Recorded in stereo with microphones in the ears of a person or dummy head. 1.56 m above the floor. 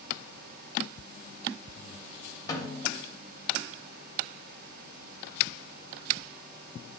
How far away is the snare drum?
About 1.8 m.